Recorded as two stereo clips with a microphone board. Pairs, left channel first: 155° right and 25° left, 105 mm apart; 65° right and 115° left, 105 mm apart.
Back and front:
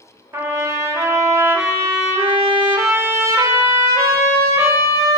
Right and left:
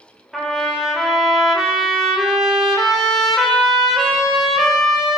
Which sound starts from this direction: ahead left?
A trumpet, at 0.3 s.